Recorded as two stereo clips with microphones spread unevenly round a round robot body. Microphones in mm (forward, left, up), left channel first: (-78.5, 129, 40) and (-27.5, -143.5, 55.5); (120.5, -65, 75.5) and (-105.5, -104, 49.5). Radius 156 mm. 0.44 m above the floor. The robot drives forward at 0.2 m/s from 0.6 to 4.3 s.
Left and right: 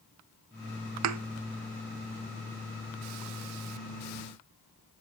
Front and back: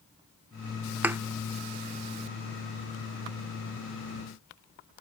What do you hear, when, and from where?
1.0 s a thud: 95° right, 0.5 m